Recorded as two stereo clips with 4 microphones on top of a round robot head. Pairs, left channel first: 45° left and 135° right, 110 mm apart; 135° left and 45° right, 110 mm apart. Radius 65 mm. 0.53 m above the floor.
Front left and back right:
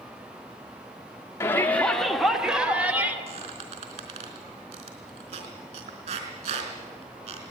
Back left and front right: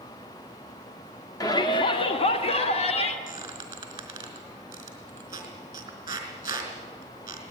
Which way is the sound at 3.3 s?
105° right.